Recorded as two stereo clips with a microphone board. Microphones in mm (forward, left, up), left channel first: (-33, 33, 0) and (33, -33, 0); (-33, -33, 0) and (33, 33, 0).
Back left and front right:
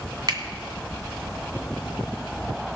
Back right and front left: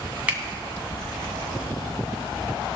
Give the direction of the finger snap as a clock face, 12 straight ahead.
1 o'clock.